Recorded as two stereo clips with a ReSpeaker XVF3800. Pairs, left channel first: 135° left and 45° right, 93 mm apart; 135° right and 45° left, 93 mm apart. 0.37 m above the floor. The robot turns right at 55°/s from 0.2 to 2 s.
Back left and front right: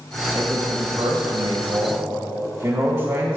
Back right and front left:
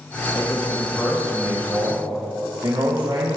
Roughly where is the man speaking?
Right.